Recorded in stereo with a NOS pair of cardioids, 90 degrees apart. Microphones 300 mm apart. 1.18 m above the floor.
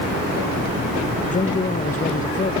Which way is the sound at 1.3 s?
25° left.